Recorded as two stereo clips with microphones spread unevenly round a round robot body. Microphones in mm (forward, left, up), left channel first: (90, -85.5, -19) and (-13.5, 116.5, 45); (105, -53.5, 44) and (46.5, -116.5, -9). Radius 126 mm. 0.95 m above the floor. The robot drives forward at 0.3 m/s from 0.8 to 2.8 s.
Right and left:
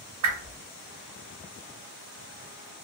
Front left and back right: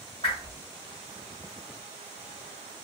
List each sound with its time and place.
0.2 s a whoosh: 105° left, 0.8 m